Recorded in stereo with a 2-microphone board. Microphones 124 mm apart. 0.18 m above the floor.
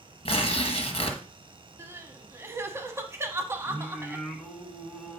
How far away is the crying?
About 1.0 m.